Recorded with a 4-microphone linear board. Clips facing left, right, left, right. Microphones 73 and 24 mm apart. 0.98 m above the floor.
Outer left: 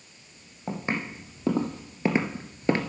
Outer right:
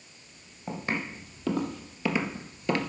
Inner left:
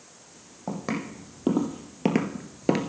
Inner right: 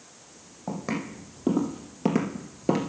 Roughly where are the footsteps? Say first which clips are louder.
Outer left 2 dB, even; left.